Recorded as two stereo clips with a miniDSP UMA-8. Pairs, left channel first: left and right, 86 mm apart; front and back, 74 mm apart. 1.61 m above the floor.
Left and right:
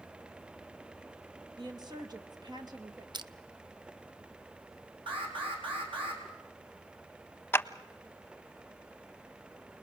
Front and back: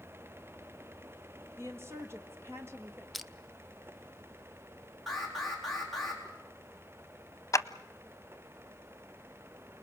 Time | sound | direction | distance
1.6 | a woman speaking | 125° right | 2 m
3.1 | crushing | 90° right | 0.6 m
5.1 | an alarm | 90° right | 4.5 m
7.5 | a clap | 30° left | 0.7 m